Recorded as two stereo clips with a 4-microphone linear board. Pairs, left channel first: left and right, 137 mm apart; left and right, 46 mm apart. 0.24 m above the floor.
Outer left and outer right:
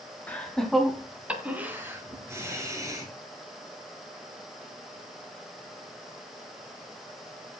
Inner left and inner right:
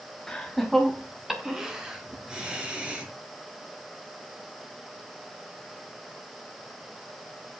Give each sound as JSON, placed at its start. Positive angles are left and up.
{"t": 0.3, "sound": "laughter", "side_deg": 10, "distance_m": 2.0}